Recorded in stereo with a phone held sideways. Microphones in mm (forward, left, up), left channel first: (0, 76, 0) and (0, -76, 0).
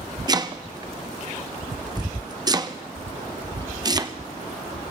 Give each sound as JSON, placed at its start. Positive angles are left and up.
{"t": 0.3, "sound": "chopping", "side_deg": -25, "distance_m": 0.8}